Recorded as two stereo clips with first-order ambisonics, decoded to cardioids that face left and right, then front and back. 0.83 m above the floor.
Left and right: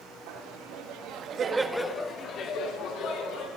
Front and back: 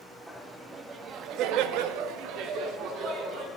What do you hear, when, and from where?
0.3 s laughter: 95° right, 1.7 m; by 3.5 s 130° left, 2.5 m